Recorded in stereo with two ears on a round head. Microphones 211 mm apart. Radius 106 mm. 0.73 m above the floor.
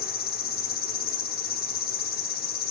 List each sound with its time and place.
0.0 s an insect: 40° left (ahead or behind), 0.9 m